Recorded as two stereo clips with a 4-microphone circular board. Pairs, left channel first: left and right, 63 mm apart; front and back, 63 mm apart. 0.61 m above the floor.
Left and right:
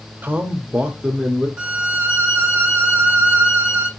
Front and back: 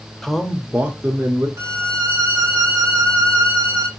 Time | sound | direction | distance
0.2 | a man speaking | 80° right | 0.6 m
1.6 | a violin | 155° right | 0.8 m